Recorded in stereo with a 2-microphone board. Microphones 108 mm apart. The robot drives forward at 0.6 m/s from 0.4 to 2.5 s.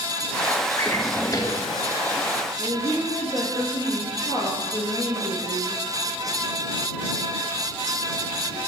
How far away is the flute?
I don't hear a flute.